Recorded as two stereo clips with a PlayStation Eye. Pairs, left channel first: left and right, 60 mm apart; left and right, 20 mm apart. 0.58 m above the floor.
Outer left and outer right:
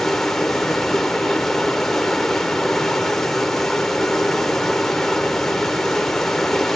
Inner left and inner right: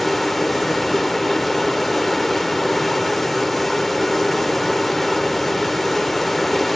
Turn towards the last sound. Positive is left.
turn(degrees=5)  # may be behind; listen again after turning